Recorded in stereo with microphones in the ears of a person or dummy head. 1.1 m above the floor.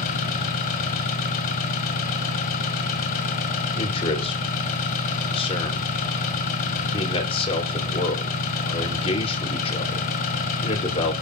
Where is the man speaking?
30° left (ahead or behind), 4 m.